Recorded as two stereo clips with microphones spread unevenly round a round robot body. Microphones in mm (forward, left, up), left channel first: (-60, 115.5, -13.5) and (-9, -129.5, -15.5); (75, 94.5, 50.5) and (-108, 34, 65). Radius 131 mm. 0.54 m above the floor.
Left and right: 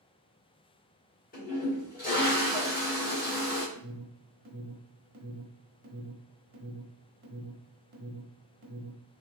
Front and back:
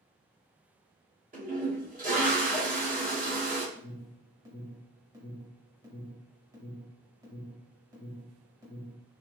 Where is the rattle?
I don't hear a rattle.